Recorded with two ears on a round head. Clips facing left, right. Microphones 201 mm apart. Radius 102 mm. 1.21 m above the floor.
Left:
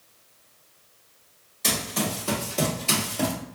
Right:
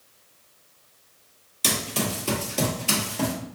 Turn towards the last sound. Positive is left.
turn(degrees=5)  # may be behind; listen again after turning